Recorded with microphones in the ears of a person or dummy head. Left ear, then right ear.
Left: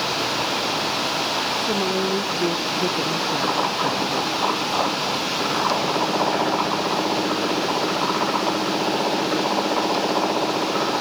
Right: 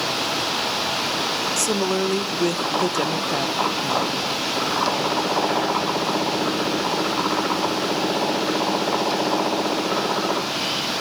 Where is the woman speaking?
70° right (ahead or behind), 1.7 m; by 4.3 s 20° left (ahead or behind), 1.0 m.